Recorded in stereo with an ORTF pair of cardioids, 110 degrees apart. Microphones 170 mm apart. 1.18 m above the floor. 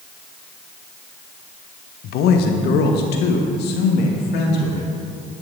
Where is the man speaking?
65° left, 0.9 m; by 4.9 s 80° left, 2.5 m.